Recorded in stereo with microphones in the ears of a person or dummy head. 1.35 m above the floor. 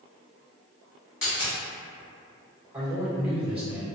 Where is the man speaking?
10° right (ahead or behind), 1.3 m.